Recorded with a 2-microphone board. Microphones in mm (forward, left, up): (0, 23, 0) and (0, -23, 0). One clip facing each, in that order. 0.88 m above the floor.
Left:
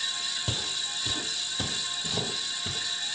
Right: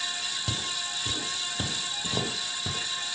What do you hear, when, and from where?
0.5 s footsteps: 10° left (ahead or behind), 2.0 m; by 2.8 s 35° right (ahead or behind), 3 m